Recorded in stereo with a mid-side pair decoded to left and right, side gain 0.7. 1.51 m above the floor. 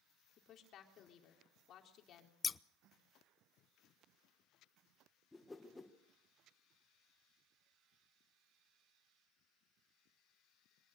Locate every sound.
0.4 s a woman speaking: 45° left, 3.5 m
2.4 s scissors: 25° left, 0.5 m
5.3 s a whoosh: 10° left, 1.7 m